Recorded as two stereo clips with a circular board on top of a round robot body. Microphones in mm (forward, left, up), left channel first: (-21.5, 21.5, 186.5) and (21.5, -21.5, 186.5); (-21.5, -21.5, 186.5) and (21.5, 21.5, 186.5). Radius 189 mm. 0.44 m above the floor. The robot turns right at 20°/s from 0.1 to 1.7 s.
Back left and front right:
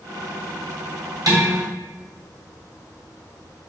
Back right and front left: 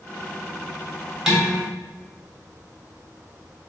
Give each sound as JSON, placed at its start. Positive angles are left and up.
{"t": 1.3, "sound": "dishes clattering", "azimuth_deg": -40, "distance_m": 2.5}